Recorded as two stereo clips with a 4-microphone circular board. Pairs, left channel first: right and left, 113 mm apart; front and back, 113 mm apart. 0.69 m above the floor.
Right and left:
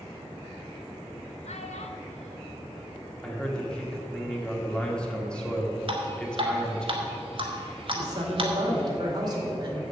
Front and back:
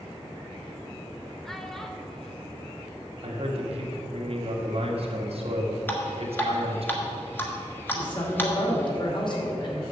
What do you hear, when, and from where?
1.4 s a child speaking: 85° right, 1.2 m
3.2 s a man speaking: 170° right, 1.8 m
5.9 s dripping: 70° left, 1.5 m
7.9 s a man speaking: 40° left, 2.5 m